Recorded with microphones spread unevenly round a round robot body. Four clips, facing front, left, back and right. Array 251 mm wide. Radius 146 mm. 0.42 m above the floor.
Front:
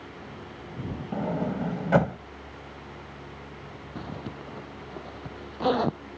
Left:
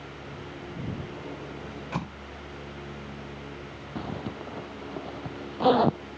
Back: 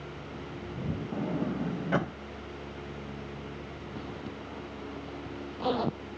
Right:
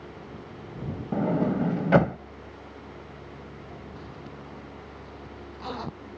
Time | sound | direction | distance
1.1 | a sliding door | 60° right | ?
4.0 | a zipper | 65° left | ?